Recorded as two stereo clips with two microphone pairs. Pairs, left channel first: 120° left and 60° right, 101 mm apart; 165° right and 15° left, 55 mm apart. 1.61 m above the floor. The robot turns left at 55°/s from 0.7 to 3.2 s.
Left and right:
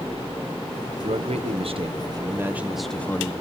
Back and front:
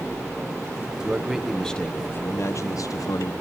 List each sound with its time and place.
1.0 s a man speaking: 55° right, 1.3 m; by 3.3 s 170° right, 1.3 m